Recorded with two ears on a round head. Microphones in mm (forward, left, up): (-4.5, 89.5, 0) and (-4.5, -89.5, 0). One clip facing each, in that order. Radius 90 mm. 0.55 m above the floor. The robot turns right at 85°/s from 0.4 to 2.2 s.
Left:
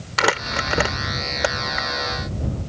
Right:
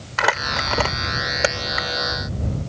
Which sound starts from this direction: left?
Crumpling, at 0.2 s.